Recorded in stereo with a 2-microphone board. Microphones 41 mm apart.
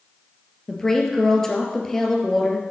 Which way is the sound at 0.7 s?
10° left (ahead or behind).